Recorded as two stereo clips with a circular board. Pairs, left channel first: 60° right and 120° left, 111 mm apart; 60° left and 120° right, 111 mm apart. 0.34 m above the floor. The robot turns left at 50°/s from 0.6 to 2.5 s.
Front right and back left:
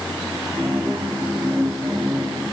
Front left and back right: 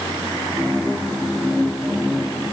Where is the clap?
No clap in this recording.